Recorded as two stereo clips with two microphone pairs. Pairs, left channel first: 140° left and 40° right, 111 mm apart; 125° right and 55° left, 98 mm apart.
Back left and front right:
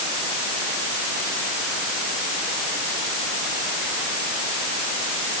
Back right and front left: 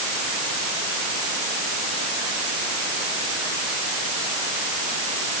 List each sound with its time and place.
Only background noise.